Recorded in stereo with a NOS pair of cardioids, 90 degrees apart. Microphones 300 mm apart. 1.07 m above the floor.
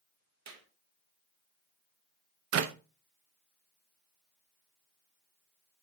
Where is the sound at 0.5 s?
60° right, 2 m.